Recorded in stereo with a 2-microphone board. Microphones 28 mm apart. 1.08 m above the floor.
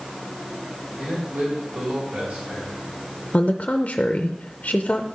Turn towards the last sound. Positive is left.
turn(degrees=45)  # may be behind; listen again after turning